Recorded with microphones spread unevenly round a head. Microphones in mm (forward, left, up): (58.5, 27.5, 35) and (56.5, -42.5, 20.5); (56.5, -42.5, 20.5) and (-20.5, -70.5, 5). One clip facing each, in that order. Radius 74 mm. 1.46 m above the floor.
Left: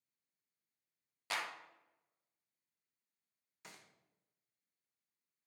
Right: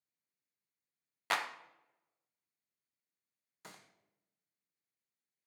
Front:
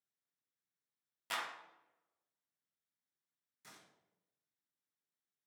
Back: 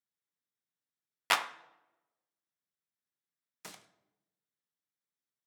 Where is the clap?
145° right, 0.6 m.